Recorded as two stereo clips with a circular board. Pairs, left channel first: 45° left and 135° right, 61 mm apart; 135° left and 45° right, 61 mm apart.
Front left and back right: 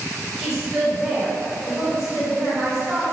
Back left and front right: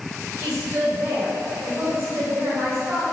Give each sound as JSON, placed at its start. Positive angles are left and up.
{"t": 0.4, "sound": "a woman speaking", "azimuth_deg": -55, "distance_m": 1.7}